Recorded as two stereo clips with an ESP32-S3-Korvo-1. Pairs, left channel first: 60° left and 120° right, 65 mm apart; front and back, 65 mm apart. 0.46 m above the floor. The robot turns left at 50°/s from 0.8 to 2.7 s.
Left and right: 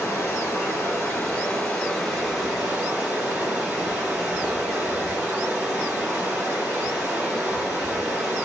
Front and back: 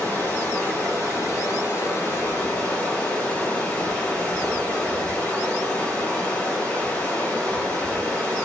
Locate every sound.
0.0 s running water: 35° left, 1.5 m; by 8.5 s 60° right, 1.5 m